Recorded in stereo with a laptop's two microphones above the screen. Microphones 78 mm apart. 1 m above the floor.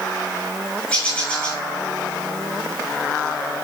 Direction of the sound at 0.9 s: 10° left (ahead or behind).